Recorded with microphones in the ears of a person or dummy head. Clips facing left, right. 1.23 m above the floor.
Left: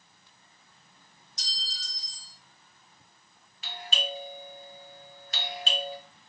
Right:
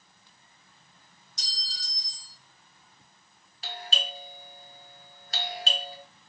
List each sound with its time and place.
1.4 s a clink: 65° right (ahead or behind), 1.0 m
3.6 s a doorbell: 35° right (ahead or behind), 0.6 m